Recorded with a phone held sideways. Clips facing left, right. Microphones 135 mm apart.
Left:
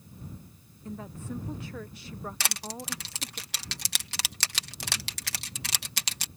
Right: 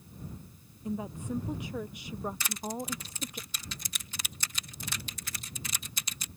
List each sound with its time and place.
0.8 s a woman speaking: 15° right (ahead or behind)
2.4 s crushing: 80° left